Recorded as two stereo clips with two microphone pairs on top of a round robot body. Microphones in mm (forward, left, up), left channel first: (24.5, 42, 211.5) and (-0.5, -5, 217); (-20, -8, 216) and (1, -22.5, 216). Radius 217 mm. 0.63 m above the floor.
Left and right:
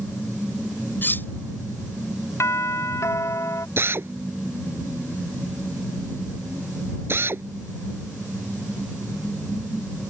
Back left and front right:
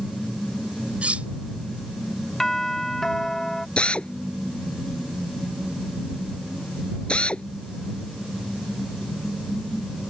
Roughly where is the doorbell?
Left.